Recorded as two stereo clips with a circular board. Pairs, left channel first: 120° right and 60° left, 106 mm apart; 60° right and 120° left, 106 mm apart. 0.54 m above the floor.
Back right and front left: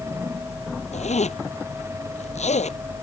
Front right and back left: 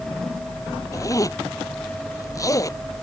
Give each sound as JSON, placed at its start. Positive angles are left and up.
{"t": 0.9, "sound": "a zipper", "azimuth_deg": -120}